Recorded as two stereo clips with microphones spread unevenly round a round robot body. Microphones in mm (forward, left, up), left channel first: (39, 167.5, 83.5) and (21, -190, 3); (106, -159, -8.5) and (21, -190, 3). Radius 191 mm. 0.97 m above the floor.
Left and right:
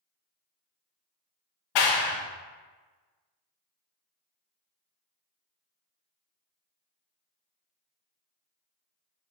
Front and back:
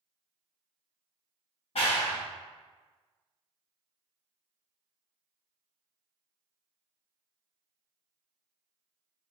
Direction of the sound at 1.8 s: 50° left.